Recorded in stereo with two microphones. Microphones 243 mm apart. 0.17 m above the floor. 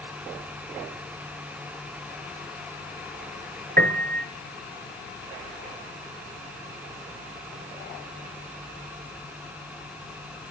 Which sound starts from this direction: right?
A piano, at 3.8 s.